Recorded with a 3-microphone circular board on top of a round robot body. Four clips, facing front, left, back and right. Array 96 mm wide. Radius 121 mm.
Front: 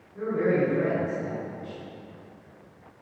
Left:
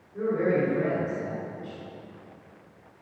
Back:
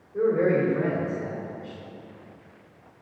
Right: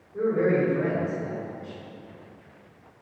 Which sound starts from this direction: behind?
A man speaking, at 0.1 s.